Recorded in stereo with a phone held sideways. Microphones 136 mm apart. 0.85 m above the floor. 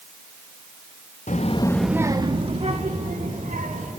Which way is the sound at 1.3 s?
65° left (ahead or behind).